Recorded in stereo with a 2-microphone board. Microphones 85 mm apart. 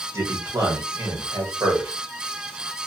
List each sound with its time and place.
0.1 s a man speaking: 35° right (ahead or behind), 1.3 m